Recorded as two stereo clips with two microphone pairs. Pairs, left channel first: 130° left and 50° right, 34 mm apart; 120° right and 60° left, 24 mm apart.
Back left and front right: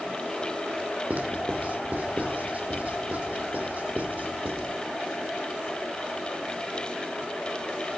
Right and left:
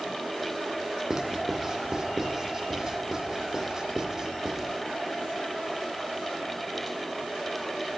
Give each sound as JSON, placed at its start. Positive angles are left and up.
{"t": 1.1, "sound": "writing", "azimuth_deg": -10, "distance_m": 2.5}